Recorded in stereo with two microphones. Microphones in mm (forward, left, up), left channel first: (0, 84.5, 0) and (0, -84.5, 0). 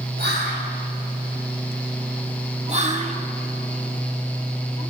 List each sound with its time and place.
0.2 s whispering: 70° right (ahead or behind), 3.5 m
2.7 s whispering: 40° right (ahead or behind), 1.2 m